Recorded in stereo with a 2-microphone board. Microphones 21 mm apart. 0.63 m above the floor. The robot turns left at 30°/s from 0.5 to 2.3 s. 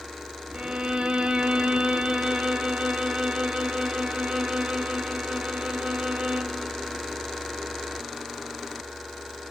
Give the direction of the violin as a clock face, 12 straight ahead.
2 o'clock.